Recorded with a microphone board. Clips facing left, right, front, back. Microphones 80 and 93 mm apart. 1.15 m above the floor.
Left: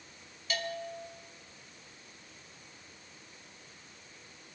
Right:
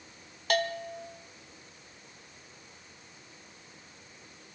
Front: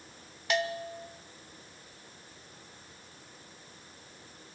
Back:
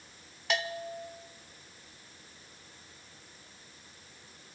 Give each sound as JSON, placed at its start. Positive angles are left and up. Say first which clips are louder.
{"t": 0.5, "sound": "a bell", "louder": "right 7 dB, front 2 dB", "azimuth_deg": -90, "distance_m": 1.0}